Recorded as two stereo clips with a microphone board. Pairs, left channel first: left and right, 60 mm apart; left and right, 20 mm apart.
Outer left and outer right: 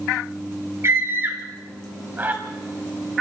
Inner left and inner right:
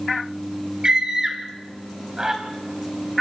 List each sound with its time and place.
0.8 s a scream: 45° right (ahead or behind), 3.5 m; by 2.4 s 30° right (ahead or behind), 5.5 m